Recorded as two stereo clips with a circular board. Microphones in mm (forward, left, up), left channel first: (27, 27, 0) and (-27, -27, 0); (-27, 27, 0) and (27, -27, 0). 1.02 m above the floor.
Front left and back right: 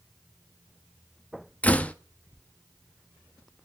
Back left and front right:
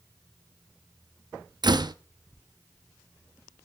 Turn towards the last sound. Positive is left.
turn(degrees=-25)